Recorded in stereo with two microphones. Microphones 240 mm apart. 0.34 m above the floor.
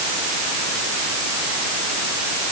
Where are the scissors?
I don't hear scissors.